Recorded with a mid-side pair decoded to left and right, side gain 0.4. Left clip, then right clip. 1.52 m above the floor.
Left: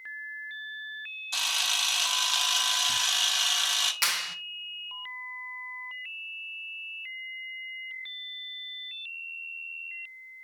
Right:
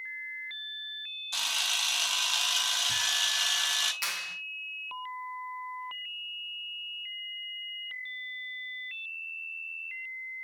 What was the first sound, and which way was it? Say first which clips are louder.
A camera shutter: left 2 dB; 25° left.